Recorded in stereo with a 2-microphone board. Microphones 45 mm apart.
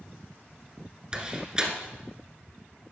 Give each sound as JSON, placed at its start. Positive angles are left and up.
{"t": 1.1, "sound": "a door slam", "side_deg": -20, "distance_m": 1.5}